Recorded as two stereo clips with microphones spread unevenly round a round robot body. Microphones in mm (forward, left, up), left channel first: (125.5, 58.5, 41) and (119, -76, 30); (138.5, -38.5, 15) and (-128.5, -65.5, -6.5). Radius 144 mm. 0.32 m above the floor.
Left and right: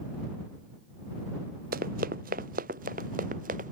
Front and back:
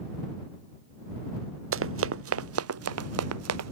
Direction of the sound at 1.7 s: 135° right.